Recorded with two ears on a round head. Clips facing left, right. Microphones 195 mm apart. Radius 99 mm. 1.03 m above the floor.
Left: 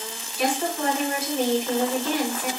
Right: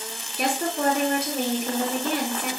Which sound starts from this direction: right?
A woman speaking, at 0.4 s.